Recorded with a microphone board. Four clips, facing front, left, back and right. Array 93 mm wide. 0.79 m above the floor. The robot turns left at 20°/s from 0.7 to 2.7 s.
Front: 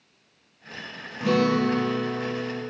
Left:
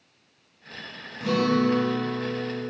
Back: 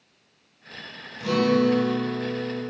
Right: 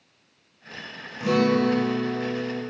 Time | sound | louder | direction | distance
1.2 | a guitar | right 2 dB, back 1 dB | 15° right | 1.1 m